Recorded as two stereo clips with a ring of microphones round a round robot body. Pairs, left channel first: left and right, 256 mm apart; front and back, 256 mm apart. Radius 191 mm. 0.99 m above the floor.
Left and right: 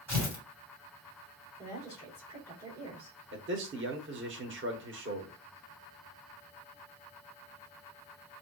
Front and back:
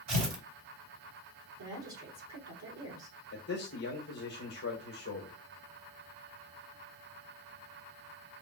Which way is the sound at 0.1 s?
175° right.